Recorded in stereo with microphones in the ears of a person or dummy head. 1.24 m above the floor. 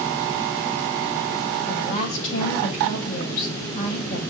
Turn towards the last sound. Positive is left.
turn(degrees=45)  # may be behind; listen again after turning